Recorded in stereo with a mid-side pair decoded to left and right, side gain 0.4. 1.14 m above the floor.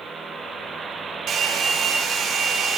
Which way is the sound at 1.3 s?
70° right.